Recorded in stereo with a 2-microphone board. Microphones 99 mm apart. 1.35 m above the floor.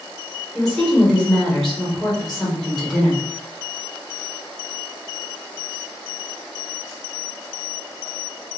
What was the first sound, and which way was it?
A woman speaking, centre (ahead or behind).